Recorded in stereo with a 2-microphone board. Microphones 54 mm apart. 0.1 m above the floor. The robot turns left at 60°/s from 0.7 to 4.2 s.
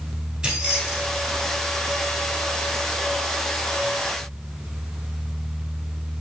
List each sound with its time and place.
0.4 s keys jangling: 10° right (ahead or behind), 1.0 m; by 1.5 s 15° left (ahead or behind), 1.0 m